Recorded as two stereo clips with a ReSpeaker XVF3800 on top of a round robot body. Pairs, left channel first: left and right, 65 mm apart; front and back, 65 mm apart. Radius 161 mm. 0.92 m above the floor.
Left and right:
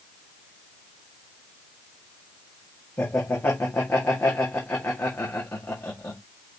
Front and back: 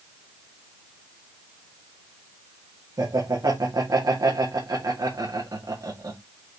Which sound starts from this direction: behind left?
Laughter, at 3.0 s.